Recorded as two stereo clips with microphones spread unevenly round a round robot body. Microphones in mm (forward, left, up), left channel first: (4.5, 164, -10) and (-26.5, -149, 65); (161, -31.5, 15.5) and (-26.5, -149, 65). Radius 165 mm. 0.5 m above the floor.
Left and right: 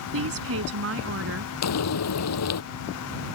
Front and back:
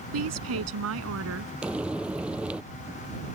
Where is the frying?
125° left.